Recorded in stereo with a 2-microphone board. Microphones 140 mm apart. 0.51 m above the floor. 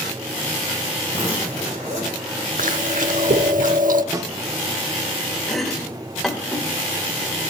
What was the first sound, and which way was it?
A zipper, 55° right (ahead or behind).